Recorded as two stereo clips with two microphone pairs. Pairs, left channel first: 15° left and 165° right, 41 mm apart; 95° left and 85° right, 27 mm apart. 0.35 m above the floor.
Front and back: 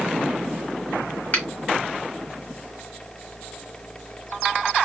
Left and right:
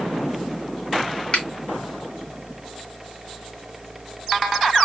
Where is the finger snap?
65° left, 1.5 m.